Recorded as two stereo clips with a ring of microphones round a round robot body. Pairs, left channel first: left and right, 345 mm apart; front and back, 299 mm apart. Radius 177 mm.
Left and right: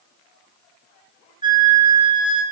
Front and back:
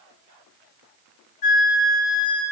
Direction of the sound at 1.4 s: 15° right.